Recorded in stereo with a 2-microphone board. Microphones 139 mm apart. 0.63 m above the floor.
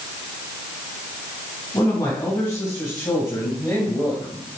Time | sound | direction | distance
1.7 | a man speaking | 25° left (ahead or behind) | 4 m